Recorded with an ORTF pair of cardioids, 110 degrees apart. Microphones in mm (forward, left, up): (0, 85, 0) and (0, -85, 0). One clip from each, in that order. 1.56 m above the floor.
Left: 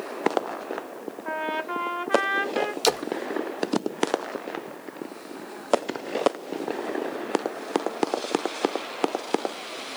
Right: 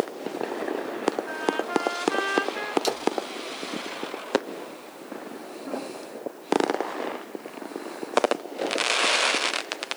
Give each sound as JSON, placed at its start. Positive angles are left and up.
{"t": 1.2, "sound": "a trumpet", "azimuth_deg": 40, "distance_m": 1.6}
{"t": 2.8, "sound": "a splash", "azimuth_deg": 35, "distance_m": 0.6}